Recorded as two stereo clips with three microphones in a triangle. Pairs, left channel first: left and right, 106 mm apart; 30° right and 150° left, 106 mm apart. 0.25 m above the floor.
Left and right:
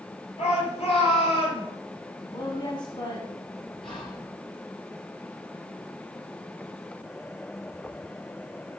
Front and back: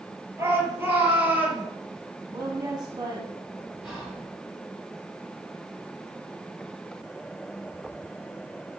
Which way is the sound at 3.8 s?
65° left.